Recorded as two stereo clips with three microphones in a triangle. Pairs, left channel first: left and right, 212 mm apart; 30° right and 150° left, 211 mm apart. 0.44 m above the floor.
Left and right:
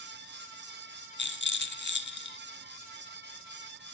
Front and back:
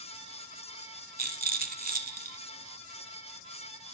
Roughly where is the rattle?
Left.